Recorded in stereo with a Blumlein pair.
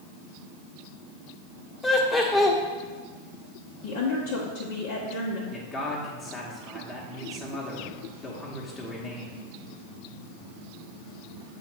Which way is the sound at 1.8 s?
15° left.